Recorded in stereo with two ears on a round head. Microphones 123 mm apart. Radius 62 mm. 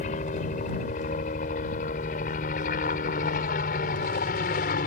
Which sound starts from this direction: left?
A helicopter, at 0.0 s.